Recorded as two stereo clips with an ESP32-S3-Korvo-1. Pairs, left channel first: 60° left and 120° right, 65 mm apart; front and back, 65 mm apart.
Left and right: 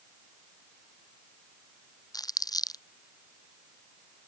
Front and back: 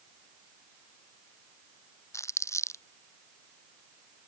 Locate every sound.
2.1 s crumpling: 40° left